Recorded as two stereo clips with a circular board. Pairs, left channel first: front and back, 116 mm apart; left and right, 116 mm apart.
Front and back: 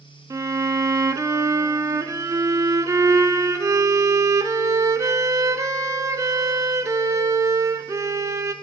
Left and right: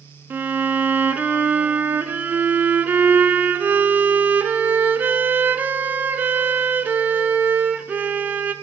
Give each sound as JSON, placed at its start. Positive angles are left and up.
{"t": 0.3, "sound": "a violin", "azimuth_deg": -150, "distance_m": 0.5}